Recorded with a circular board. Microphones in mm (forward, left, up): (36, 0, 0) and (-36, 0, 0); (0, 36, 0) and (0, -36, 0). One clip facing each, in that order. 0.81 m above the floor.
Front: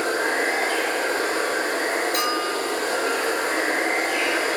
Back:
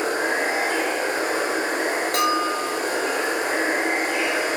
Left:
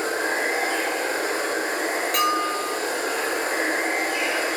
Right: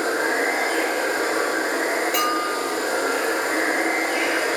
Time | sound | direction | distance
0.0 | running water | 110° right | 1.9 m
2.1 | a bell | 175° right | 2 m